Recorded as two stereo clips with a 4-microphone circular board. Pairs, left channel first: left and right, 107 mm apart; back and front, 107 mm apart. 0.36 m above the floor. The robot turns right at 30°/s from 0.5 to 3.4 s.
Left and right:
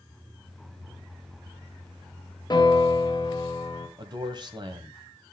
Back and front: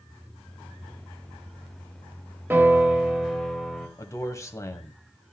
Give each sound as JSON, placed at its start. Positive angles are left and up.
{"t": 2.5, "sound": "a piano", "azimuth_deg": 65, "distance_m": 1.8}
{"t": 4.0, "sound": "a man speaking", "azimuth_deg": -125, "distance_m": 1.8}